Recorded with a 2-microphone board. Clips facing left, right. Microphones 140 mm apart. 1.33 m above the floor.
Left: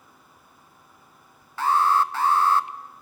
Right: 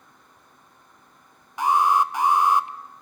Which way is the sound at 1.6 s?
15° right (ahead or behind).